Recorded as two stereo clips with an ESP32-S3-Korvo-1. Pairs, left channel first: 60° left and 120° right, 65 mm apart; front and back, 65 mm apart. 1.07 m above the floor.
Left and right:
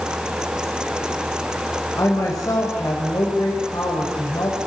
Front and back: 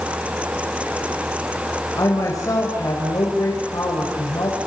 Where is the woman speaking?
30° left, 4.5 m.